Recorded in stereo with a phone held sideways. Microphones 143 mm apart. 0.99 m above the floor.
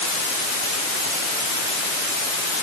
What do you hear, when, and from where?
Only background noise.